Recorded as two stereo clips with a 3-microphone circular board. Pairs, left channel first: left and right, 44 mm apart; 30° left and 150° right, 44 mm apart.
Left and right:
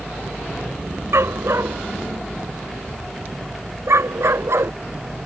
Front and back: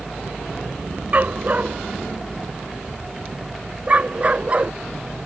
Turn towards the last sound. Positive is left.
turn(degrees=-90)